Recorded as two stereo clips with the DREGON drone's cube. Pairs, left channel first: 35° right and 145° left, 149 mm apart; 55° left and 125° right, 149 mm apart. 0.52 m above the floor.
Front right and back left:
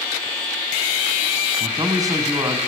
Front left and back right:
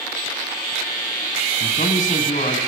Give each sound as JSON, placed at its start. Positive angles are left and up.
{"t": 1.6, "sound": "a man speaking", "azimuth_deg": 80, "distance_m": 4.0}